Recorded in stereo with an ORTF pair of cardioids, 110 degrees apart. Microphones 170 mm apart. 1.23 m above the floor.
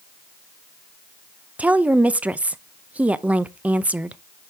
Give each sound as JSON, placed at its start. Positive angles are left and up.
{"t": 1.6, "sound": "a woman speaking", "azimuth_deg": -10, "distance_m": 0.6}